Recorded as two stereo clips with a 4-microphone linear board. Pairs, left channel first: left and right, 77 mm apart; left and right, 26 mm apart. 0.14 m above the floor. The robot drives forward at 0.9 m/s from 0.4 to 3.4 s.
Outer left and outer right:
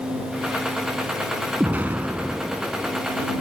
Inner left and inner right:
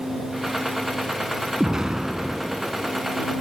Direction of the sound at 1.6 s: 20° right (ahead or behind).